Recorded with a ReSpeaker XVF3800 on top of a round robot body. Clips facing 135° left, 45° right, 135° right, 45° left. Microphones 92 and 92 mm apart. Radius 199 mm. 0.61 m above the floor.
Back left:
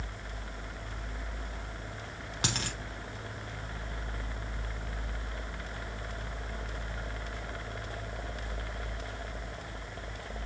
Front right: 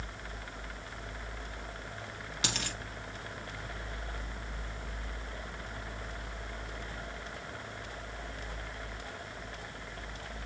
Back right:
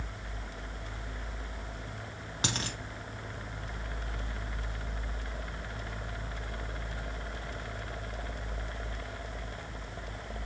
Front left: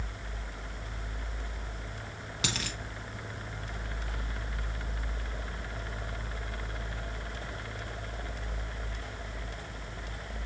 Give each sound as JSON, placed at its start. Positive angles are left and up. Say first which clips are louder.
{"t": 2.4, "sound": "a dropped coin", "louder": "back left 2 dB, back right 1 dB", "azimuth_deg": 175, "distance_m": 0.5}